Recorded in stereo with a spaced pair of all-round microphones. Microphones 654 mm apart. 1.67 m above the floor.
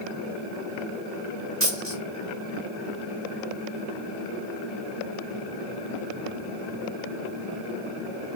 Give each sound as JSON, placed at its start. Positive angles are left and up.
{"t": 1.6, "sound": "a dropped coin", "side_deg": -20, "distance_m": 1.2}